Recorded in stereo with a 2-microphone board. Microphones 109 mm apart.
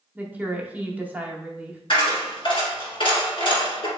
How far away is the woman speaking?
About 0.7 m.